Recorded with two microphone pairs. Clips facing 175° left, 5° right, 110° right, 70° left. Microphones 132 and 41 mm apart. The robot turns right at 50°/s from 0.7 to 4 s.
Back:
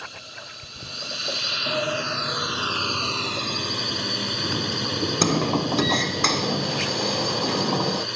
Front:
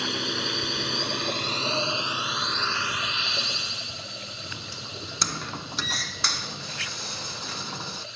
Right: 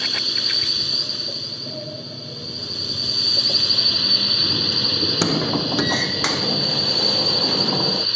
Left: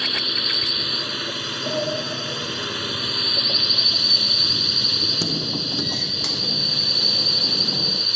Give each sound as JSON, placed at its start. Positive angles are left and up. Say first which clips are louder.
{"t": 0.0, "sound": "a drone", "louder": "front 11 dB, left 1 dB", "azimuth_deg": 0}
{"t": 1.7, "sound": "a sliding door", "louder": "back 6 dB, left 8 dB", "azimuth_deg": 95}